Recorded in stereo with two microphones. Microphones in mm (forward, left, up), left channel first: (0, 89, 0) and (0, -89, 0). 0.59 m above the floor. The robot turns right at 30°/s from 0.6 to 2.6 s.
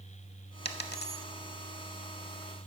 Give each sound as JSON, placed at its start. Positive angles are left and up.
{"t": 0.7, "sound": "a dropped coin", "side_deg": 65, "distance_m": 0.7}